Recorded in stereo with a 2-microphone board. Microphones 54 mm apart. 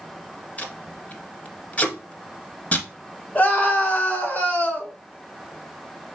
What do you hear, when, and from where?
0.6 s tape being pulled: 30° left (ahead or behind), 1.1 m
3.4 s a scream: 35° left (ahead or behind), 2 m